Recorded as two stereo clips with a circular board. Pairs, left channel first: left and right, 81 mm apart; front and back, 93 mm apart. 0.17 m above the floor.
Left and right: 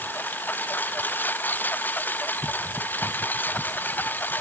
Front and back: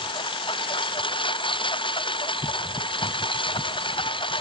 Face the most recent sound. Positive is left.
turn(degrees=25)